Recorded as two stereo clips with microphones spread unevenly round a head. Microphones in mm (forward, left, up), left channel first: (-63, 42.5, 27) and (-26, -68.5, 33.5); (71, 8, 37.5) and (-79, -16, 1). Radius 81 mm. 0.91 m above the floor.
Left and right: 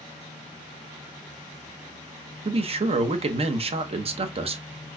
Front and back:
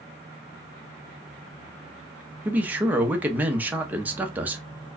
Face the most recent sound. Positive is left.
turn(degrees=-100)